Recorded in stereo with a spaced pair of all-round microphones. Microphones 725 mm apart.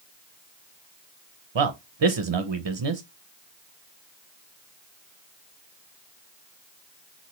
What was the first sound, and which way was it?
A man speaking, 40° right (ahead or behind).